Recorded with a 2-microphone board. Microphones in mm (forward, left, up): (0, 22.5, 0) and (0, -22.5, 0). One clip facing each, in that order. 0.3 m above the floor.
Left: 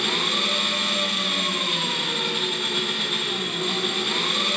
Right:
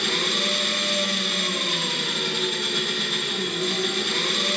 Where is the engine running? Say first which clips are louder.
Even; 20° left (ahead or behind), 3 m.